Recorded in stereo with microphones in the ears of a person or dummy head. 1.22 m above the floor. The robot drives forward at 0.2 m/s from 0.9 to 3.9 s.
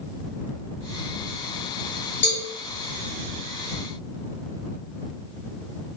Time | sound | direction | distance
2.2 | a cowbell | 55° left (ahead or behind) | 0.8 m